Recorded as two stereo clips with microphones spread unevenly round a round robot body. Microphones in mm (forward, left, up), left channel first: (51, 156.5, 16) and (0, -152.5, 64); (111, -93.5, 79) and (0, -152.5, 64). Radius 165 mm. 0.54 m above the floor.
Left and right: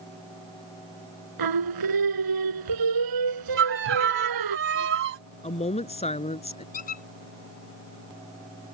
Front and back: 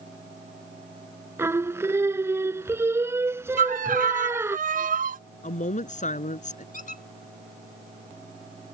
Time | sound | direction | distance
1.4 | singing | 80° right | ?
3.6 | a violin | 155° right | ?
5.4 | a woman speaking | 10° left | ?
6.7 | a squeak | 15° left | ?